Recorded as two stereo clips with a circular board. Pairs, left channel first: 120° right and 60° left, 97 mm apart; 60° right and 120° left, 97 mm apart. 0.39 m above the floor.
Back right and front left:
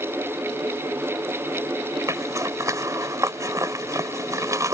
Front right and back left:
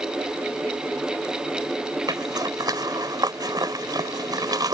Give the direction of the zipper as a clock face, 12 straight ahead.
9 o'clock.